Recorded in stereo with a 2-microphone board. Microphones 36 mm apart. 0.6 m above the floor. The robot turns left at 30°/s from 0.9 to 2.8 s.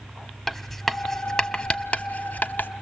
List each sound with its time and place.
0.5 s writing: 10° left (ahead or behind), 0.6 m; by 2.7 s 60° left (ahead or behind), 0.6 m